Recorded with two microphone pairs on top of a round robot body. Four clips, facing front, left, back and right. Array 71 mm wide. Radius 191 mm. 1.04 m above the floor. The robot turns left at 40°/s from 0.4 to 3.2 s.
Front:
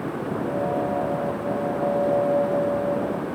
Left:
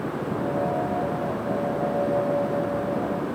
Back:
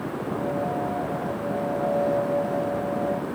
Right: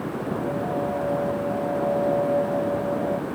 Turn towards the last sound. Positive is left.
No sound to turn to.